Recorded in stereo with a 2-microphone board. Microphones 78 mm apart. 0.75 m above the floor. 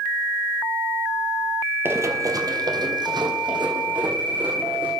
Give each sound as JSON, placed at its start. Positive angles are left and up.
{"t": 1.9, "sound": "running footsteps", "side_deg": -30, "distance_m": 1.0}